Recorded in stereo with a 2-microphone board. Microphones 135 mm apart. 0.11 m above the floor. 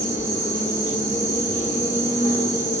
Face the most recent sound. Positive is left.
turn(degrees=75)  # may be behind; listen again after turning